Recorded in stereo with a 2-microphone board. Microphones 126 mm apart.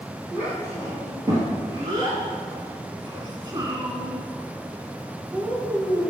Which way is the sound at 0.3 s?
25° right (ahead or behind).